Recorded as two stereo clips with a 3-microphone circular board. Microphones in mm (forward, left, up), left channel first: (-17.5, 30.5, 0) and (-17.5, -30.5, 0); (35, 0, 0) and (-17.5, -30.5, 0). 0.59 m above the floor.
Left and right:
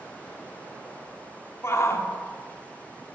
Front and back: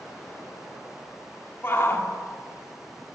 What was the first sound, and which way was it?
A shout, 70° left.